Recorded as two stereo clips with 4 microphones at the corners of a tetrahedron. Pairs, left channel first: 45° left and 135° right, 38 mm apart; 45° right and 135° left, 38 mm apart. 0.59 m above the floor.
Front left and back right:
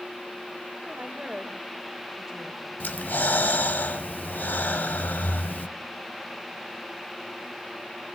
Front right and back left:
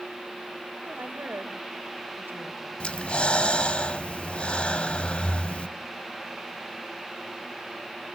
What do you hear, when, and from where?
0.8 s a woman speaking: 170° left, 2.5 m; by 2.7 s 145° left, 2 m
2.8 s breathing: 15° left, 0.7 m